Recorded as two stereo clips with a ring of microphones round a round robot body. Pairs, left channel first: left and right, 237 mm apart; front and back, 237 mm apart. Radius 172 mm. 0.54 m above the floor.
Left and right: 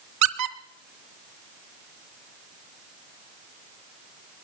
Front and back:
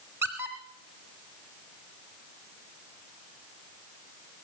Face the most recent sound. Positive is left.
turn(degrees=-95)